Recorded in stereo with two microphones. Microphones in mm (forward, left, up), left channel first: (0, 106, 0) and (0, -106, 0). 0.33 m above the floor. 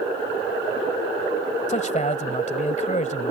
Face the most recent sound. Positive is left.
turn(degrees=35)  # may be behind; listen again after turning